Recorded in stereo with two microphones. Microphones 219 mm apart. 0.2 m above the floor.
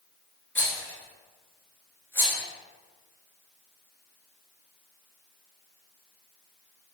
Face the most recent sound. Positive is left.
turn(degrees=10)  # may be behind; listen again after turning